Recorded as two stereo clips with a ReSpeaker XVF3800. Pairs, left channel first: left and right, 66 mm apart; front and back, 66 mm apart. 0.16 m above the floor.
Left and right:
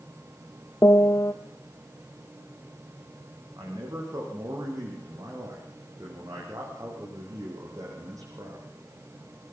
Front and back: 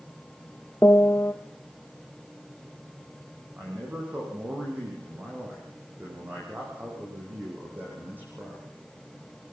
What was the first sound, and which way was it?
A piano, 45° left.